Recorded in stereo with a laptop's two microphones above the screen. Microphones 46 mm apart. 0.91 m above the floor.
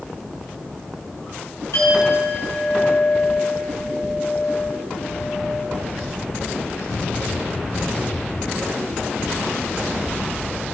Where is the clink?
80° left, 5.5 m.